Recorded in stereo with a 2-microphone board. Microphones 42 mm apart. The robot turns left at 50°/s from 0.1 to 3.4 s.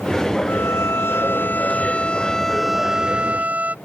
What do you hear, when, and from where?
0.5 s a violin: 105° left; by 3.8 s 40° right